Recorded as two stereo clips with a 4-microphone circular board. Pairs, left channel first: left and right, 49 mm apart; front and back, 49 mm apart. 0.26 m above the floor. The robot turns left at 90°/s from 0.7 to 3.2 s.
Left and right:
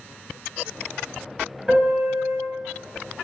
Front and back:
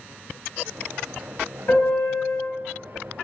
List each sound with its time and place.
1.7 s a piano: 20° right, 1.9 m; by 2.4 s 80° right, 1.9 m